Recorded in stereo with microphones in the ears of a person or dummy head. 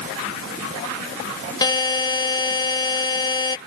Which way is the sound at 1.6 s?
20° left (ahead or behind).